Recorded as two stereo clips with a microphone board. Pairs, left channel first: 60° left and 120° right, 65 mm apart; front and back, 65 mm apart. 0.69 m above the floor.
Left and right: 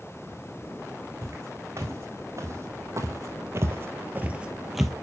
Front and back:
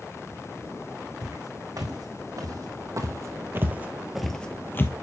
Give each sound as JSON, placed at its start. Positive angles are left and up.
{"t": 1.2, "sound": "footsteps", "azimuth_deg": -165, "distance_m": 2.5}